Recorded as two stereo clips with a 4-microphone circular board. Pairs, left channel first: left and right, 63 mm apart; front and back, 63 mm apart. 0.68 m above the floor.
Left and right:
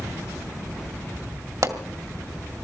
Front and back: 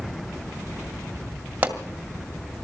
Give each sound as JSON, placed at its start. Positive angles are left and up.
{"t": 1.6, "sound": "a pop", "azimuth_deg": -115, "distance_m": 1.9}